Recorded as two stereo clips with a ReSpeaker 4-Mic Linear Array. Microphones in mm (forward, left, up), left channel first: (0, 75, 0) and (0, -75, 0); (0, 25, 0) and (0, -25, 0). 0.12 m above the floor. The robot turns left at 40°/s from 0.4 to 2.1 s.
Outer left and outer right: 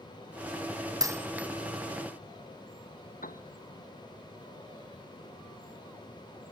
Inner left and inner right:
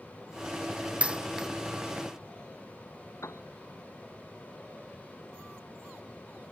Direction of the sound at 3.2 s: 75° left (ahead or behind).